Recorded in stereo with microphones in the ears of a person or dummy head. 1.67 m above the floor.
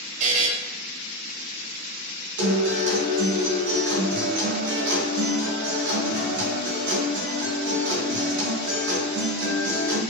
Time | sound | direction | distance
0.2 | a buzzer | 35° right (ahead or behind) | 0.5 m
2.4 | a guitar | 60° right (ahead or behind) | 1.1 m